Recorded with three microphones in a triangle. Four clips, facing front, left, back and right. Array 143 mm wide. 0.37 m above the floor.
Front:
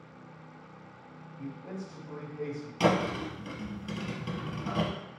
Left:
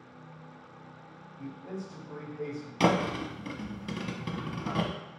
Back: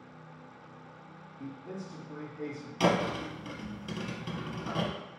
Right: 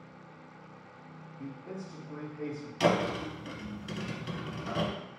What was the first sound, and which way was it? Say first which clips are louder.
A man speaking: left 2 dB, front 1 dB; 35° left.